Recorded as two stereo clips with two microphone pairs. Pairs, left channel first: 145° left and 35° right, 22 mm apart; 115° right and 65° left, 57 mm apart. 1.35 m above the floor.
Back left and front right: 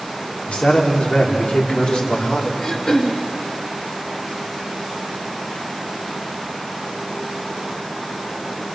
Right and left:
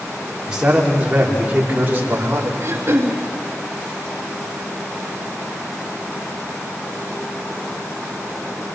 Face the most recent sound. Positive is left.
turn(degrees=105)